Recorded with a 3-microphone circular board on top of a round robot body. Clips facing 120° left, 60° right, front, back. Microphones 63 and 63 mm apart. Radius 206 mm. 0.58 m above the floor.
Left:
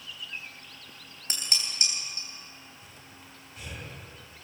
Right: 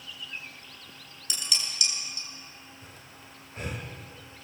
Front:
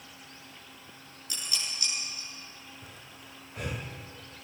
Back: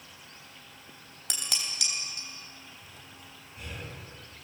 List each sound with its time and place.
1.3 s dishes clattering: 175° left, 3.5 m
2.8 s breathing: 15° right, 3 m